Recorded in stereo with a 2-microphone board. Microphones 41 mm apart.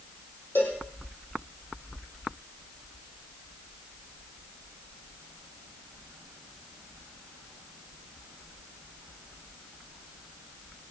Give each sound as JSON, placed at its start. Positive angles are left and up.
{"t": 0.6, "sound": "a cowbell", "side_deg": 75, "distance_m": 6.0}